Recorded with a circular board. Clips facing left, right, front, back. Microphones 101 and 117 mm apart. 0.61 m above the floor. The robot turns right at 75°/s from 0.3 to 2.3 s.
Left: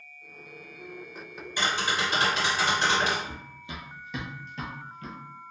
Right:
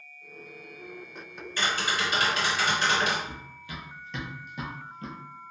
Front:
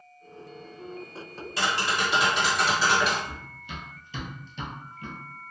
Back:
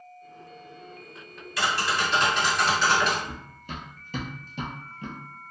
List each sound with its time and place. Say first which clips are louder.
1.6 s tapping: left 1 dB, back 1 dB; 30° left, 1.4 m; by 3.1 s 85° left, 1.4 m
3.2 s running footsteps: left 1 dB, back 1 dB; 140° left, 1.1 m; by 5.2 s 125° right, 0.9 m